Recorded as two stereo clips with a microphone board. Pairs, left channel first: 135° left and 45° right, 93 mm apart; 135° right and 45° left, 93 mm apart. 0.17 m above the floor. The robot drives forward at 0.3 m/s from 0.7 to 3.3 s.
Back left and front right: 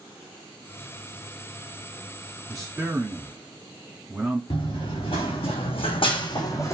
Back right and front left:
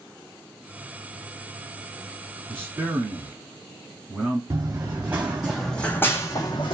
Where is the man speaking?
5° left, 1.2 m.